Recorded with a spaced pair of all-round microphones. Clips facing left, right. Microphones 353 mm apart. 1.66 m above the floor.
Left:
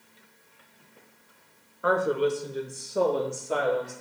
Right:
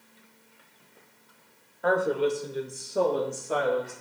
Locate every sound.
1.8 s a woman speaking: 10° left (ahead or behind), 1.3 m; by 3.9 s 5° right (ahead or behind), 3.5 m